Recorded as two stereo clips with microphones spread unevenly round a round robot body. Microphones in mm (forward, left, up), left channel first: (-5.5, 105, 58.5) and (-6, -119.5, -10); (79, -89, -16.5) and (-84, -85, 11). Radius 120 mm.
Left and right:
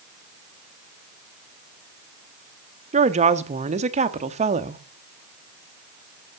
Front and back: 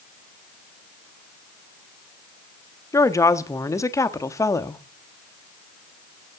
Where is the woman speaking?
60° right, 1.2 m.